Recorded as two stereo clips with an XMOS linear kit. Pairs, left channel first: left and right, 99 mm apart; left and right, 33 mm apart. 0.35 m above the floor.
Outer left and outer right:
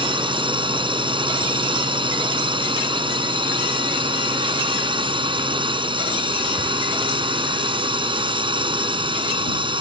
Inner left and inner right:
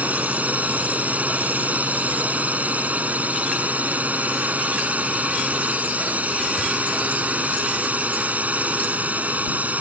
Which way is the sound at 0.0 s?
55° right (ahead or behind).